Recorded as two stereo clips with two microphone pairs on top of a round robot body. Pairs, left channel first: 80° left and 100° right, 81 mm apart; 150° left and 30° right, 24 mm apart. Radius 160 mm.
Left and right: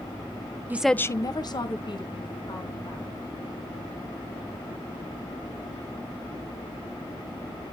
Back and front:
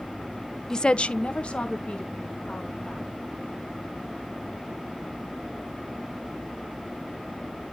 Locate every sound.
0.7 s a woman speaking: 125° right, 0.5 m; by 3.2 s 105° left, 2.5 m